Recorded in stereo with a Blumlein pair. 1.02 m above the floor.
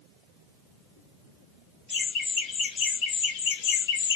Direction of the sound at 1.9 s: 25° left.